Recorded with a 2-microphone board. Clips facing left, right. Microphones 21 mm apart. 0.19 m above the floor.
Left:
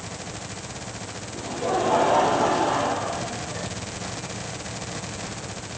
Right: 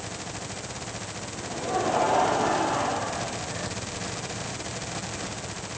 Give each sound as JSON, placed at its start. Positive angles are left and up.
{"t": 1.3, "sound": "laughter", "side_deg": 55, "distance_m": 5.5}